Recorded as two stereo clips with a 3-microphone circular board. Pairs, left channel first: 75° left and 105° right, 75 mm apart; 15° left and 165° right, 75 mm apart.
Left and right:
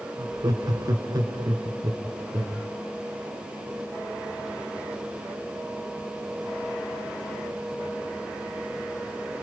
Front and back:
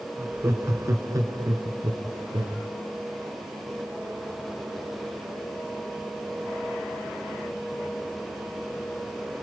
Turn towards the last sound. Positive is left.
turn(degrees=-145)